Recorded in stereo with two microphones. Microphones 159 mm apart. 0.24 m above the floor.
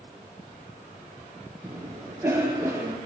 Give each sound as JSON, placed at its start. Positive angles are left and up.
{"t": 1.6, "sound": "a cough", "side_deg": -15, "distance_m": 5.0}